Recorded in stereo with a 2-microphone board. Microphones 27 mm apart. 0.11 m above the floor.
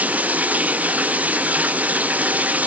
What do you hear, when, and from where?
0.0 s running water: 75° right (ahead or behind)